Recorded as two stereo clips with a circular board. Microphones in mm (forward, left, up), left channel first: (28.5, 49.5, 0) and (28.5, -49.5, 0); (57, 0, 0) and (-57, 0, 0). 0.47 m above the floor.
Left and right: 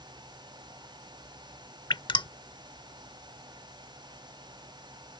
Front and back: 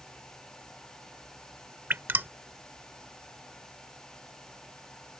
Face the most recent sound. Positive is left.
turn(degrees=110)